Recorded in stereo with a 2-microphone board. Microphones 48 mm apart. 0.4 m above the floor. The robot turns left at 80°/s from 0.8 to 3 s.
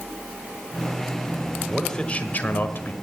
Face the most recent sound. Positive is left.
turn(degrees=70)